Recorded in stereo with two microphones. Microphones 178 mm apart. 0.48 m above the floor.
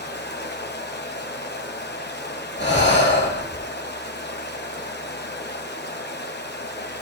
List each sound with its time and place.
0.0 s running water: 70° left (ahead or behind), 2 m
2.6 s breathing: 80° left, 5 m